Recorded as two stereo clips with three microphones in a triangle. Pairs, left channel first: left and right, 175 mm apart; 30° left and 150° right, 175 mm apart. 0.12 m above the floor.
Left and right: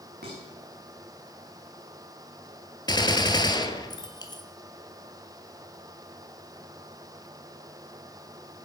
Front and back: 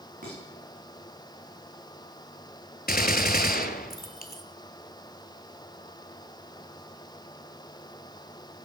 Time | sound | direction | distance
0.2 | dishes clattering | 115° right | 8.5 m
2.9 | a gunshot | 30° left | 1.0 m